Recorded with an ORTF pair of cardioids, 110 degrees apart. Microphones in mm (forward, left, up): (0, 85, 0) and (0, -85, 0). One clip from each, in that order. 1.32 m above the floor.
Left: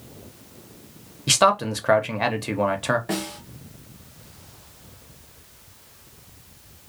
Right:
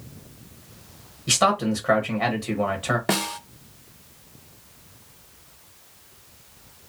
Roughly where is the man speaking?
Ahead left.